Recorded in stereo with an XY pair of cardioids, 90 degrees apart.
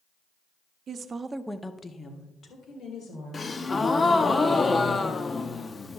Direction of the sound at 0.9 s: 65° right.